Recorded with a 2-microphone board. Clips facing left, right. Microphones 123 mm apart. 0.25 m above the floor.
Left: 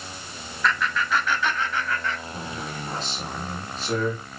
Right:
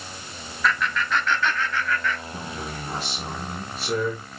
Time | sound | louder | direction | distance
0.6 | laughter | even | centre (ahead or behind) | 2.0 m
2.3 | a man speaking | even | 10° right (ahead or behind) | 4 m